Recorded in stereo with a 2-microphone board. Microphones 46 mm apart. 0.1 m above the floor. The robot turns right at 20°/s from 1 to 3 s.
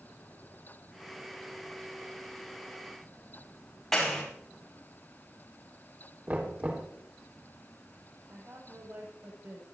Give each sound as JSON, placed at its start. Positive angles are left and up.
{"t": 3.9, "sound": "a clap", "side_deg": 5, "distance_m": 7.5}
{"t": 6.3, "sound": "knocking", "side_deg": -35, "distance_m": 3.5}
{"t": 8.3, "sound": "a woman speaking", "side_deg": -80, "distance_m": 8.5}